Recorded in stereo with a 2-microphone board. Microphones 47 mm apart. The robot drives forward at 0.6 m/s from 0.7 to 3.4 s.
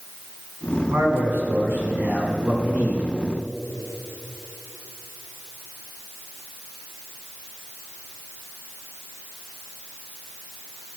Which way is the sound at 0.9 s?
60° right (ahead or behind).